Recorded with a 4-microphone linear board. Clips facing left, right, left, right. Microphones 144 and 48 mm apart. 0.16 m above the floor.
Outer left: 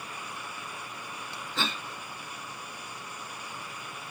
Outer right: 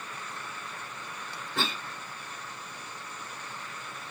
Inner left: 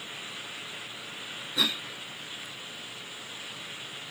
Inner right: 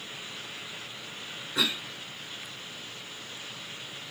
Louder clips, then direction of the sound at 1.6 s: Outer right 1 dB, even; 55° right (ahead or behind).